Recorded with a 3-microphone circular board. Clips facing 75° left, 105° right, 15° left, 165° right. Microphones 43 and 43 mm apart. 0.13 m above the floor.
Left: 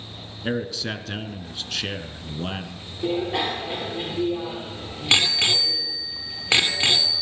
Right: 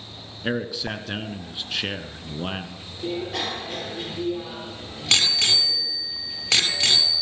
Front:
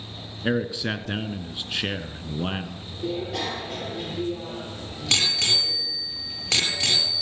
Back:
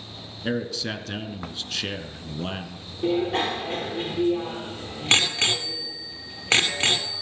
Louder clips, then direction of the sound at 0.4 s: Even, front 3 dB; 35° right.